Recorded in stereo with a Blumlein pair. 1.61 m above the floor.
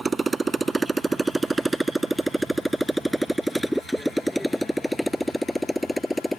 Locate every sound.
0.0 s a motorcycle: 15° right; by 6.4 s 5° left